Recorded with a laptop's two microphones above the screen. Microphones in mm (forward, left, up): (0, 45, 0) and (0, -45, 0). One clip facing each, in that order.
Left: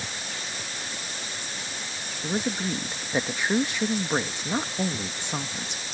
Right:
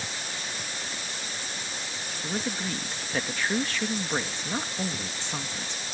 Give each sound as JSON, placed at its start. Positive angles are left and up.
{"t": 2.2, "sound": "a man speaking", "side_deg": 20}